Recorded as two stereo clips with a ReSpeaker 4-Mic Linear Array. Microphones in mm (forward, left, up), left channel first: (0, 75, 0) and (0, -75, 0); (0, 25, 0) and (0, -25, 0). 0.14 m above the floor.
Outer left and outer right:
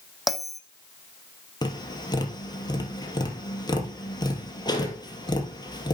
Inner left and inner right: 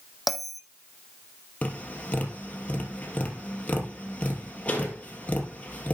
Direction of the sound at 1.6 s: 30° left (ahead or behind).